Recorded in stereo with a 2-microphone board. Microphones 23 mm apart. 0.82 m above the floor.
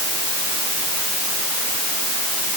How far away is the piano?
No piano in this recording.